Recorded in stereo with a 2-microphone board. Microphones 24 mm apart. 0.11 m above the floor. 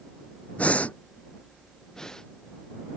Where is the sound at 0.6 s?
75° left (ahead or behind).